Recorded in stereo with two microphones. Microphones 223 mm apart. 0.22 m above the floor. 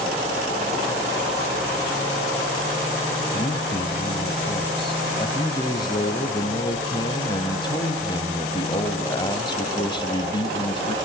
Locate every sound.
3.3 s a man speaking: 25° left (ahead or behind), 1.1 m
5.2 s a man speaking: 20° left (ahead or behind), 1.2 m